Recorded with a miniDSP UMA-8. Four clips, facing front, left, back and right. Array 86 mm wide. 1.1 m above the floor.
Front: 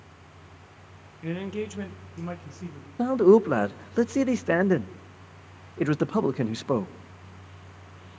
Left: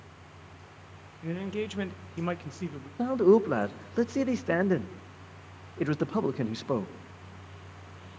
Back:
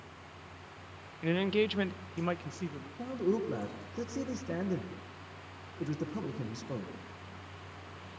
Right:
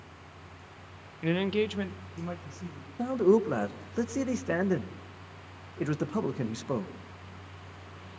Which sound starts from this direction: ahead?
A man speaking, at 3.0 s.